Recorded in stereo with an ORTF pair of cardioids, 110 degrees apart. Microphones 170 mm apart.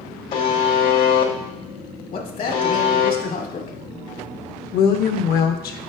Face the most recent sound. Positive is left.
turn(degrees=65)